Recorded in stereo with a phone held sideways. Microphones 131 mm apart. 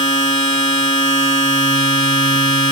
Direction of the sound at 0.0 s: 45° right (ahead or behind).